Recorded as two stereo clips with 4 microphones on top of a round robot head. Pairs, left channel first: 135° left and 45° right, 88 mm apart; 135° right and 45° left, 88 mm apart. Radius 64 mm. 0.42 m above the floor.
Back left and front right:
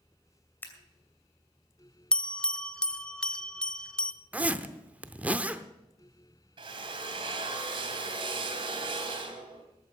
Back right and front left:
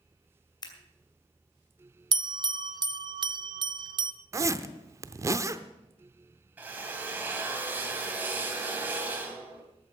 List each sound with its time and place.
0.6 s scissors: 160° right, 2.5 m
2.1 s a bell: 55° left, 0.7 m
4.3 s a zipper: 20° left, 0.7 m
6.6 s a drill: 25° right, 3 m